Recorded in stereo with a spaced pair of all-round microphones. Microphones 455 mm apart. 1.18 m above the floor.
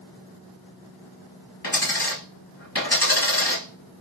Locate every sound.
1.6 s a dropped coin: 55° left (ahead or behind), 1.9 m